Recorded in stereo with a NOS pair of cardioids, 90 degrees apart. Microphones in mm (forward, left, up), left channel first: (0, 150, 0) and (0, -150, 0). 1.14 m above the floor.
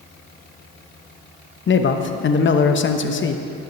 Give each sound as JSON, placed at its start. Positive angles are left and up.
{"t": 1.7, "sound": "a man speaking", "azimuth_deg": 40, "distance_m": 0.9}